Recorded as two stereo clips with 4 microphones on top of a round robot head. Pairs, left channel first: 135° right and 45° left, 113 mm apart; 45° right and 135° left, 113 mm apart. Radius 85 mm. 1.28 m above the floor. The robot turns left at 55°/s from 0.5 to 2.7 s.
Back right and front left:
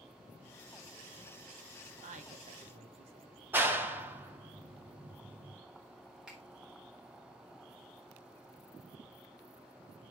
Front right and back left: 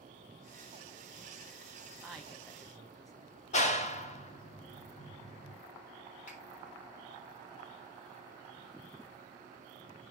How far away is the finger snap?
About 3.5 m.